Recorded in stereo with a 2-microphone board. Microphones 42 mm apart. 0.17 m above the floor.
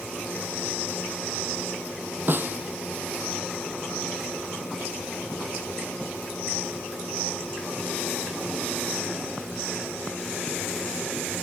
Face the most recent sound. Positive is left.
turn(degrees=-45)  # may be behind; listen again after turning